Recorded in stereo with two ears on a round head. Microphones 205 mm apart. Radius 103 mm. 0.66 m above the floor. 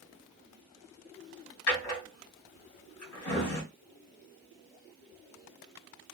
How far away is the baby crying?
No baby crying in this recording.